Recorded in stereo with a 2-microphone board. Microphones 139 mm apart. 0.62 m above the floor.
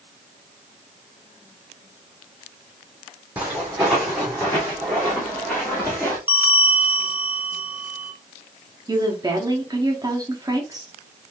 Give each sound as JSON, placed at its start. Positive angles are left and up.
{"t": 3.4, "sound": "footsteps", "side_deg": -10, "distance_m": 1.6}
{"t": 6.3, "sound": "a bell", "side_deg": -15, "distance_m": 0.6}
{"t": 8.9, "sound": "a woman speaking", "side_deg": -25, "distance_m": 1.1}